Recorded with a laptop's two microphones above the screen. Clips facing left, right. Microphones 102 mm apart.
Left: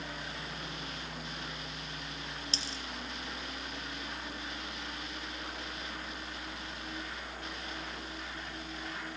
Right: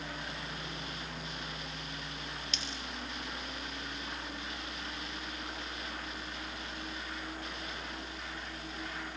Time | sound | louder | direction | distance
2.5 | a dropped coin | even | 35° left (ahead or behind) | 1.6 m